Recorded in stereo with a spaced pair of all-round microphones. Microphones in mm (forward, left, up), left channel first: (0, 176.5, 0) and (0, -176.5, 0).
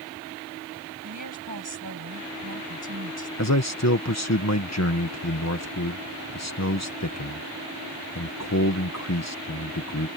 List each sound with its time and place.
1.0 s a woman speaking: 55° right (ahead or behind)
3.4 s a man speaking: 45° left (ahead or behind)